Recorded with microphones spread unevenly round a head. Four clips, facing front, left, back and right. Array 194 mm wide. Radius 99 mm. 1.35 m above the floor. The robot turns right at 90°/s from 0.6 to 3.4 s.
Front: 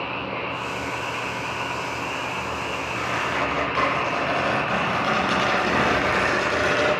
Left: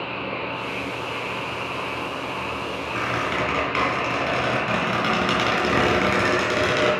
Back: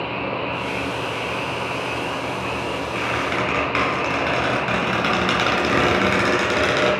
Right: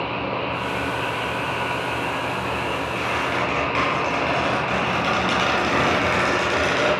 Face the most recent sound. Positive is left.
turn(degrees=145)